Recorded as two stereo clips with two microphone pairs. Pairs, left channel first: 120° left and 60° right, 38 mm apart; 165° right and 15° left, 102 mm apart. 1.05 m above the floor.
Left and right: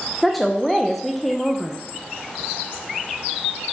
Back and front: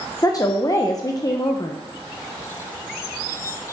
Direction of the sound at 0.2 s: 150° right.